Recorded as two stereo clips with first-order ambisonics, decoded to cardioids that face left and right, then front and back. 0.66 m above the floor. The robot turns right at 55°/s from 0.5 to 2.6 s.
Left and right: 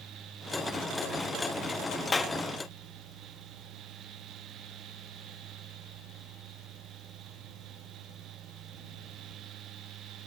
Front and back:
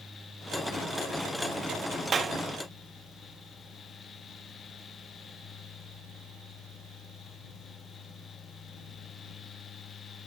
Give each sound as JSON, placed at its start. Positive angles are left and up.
{"t": 2.1, "sound": "a clap", "azimuth_deg": 145}